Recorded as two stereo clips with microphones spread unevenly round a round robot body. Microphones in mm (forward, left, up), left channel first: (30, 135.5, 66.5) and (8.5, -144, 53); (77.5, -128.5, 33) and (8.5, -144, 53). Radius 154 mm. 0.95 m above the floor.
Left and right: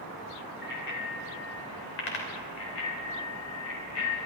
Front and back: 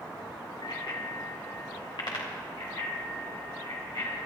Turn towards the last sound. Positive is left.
turn(degrees=50)